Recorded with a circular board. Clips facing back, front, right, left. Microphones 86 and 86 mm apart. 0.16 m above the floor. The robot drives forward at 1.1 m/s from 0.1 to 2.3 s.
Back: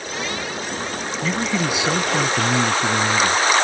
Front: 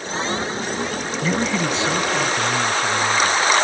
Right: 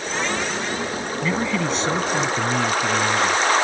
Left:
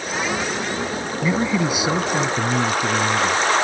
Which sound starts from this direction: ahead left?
A man speaking, at 1.2 s.